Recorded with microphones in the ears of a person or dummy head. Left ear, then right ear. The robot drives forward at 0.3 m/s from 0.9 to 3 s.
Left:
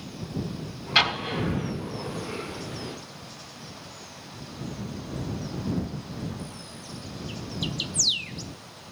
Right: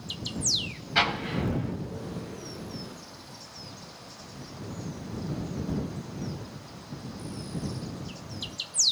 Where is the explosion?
40° left (ahead or behind), 1.6 m; by 1.7 s 45° left (ahead or behind), 1.4 m.